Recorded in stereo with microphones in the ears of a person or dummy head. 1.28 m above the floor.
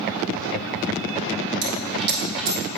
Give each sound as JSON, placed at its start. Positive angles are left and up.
{"t": 1.6, "sound": "a dropped coin", "side_deg": -60, "distance_m": 1.1}